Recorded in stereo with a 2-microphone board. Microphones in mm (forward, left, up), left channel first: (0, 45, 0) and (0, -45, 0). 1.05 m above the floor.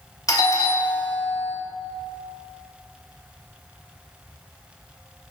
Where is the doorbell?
40° left (ahead or behind), 1.6 m.